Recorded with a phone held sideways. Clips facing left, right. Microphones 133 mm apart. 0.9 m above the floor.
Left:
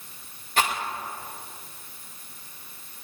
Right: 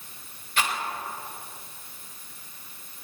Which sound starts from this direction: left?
A rattle, at 0.6 s.